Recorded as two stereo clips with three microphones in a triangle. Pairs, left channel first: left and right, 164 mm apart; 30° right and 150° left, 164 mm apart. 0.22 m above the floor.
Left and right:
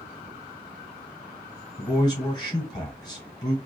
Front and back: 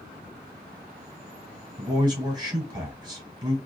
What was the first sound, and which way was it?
A man speaking, 125° left.